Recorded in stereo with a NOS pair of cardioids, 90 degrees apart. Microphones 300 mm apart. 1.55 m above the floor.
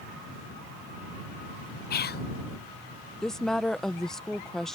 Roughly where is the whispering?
Ahead left.